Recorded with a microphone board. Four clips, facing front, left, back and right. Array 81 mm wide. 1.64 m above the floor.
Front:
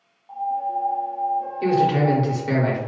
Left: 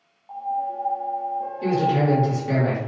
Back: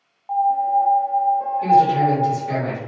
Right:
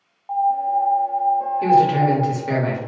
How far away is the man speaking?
About 1.4 m.